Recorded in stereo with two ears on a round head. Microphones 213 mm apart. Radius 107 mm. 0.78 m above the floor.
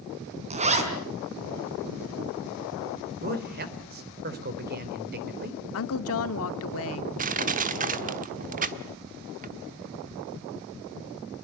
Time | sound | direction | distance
0.5 | a zipper | 30° right (ahead or behind) | 3.5 m
3.2 | a man speaking | 40° right (ahead or behind) | 3 m
5.7 | a woman speaking | 65° left (ahead or behind) | 1.6 m
7.2 | crushing | 35° right (ahead or behind) | 1.3 m